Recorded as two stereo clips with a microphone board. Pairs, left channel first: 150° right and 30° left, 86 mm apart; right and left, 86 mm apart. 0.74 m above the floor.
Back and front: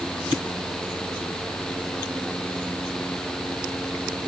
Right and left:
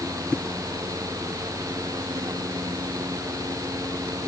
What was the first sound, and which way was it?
Only background noise.